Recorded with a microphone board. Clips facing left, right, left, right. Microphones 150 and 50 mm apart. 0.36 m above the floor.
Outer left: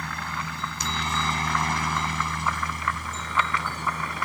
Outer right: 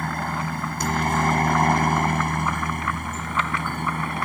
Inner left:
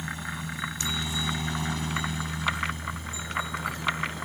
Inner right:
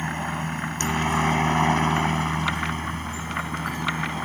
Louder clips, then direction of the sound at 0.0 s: Outer right 6 dB, inner right 6 dB; 50° right (ahead or behind).